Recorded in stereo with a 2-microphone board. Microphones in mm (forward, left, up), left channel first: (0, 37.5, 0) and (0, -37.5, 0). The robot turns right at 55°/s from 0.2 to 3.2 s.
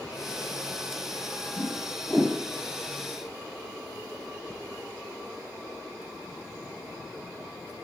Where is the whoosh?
40° left (ahead or behind), 5.5 m; by 2.4 s 5° right (ahead or behind), 5.5 m.